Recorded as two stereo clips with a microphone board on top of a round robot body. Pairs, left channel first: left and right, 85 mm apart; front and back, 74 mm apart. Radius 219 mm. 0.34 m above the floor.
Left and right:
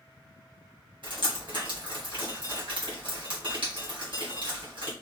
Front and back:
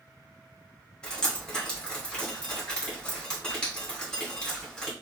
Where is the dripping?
80° right, 2.5 m.